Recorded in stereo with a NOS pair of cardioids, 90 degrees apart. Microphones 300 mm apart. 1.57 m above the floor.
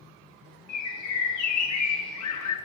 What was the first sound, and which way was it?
A bird, 65° left.